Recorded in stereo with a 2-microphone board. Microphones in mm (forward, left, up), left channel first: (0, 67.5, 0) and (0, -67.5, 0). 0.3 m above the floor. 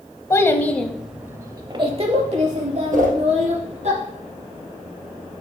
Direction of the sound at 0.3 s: 20° left (ahead or behind).